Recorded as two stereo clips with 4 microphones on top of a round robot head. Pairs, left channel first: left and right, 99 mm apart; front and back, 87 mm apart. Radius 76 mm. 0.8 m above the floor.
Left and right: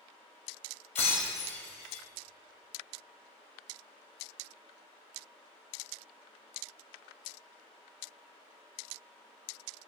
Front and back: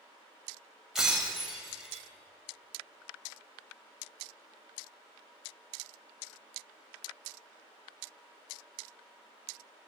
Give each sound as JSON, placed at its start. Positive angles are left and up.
{"t": 0.9, "sound": "breaking glass", "azimuth_deg": 95, "distance_m": 1.8}